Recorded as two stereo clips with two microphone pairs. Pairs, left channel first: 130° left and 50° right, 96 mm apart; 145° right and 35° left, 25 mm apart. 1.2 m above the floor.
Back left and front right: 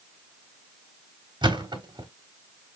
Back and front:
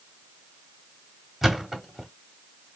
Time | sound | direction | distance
1.4 | a thud | 50° right | 1.2 m